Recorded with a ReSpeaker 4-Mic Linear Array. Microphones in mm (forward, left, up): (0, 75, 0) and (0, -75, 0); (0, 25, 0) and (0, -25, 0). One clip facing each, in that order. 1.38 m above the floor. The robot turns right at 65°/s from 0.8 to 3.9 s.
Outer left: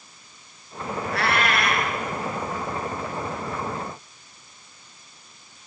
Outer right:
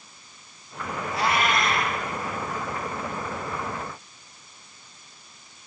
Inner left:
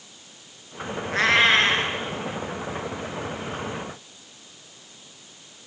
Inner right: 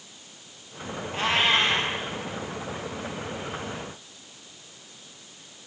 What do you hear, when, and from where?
1.1 s a cat meowing: 80° left, 3.5 m; by 1.9 s 135° left, 3.5 m